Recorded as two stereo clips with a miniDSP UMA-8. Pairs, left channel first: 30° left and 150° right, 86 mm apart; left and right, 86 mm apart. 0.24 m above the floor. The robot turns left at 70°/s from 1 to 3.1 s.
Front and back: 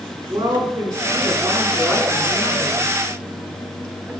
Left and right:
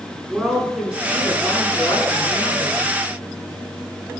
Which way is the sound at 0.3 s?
170° right.